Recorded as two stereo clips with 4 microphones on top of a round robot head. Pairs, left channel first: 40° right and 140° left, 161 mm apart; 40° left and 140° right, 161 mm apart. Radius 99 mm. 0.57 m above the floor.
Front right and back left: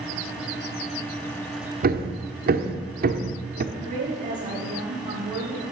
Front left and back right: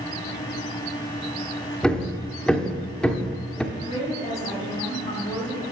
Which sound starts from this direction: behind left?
Hammering, at 1.8 s.